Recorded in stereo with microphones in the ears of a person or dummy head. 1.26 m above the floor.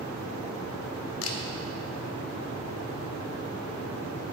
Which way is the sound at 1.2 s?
80° left.